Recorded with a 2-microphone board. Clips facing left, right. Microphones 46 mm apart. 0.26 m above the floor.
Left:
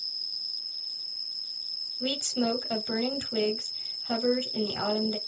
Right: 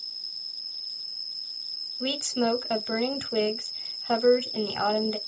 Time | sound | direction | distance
0.0 | an insect | 35° right (ahead or behind) | 0.8 m
2.0 | a woman speaking | 25° right (ahead or behind) | 1.0 m